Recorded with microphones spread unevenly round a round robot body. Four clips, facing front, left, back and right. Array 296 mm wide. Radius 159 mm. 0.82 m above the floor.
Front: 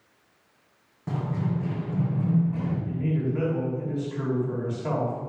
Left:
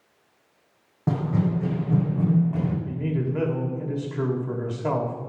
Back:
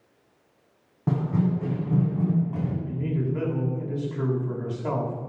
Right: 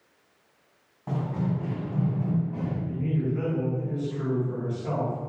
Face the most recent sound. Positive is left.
turn(degrees=95)